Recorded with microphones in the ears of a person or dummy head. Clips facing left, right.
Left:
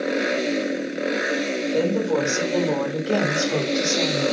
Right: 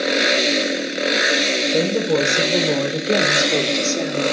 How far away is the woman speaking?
About 4.5 m.